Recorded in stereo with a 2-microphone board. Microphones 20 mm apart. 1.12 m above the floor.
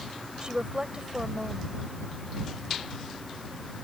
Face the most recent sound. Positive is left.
turn(degrees=-50)  # may be behind; listen again after turning